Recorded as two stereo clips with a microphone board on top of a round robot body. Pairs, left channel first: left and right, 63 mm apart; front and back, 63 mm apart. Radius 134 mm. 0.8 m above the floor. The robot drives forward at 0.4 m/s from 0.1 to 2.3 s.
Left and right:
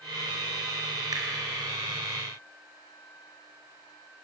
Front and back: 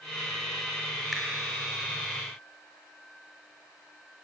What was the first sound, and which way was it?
A finger snap, 90° right.